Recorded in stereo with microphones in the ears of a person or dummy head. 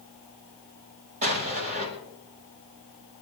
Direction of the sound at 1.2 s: 40° right (ahead or behind).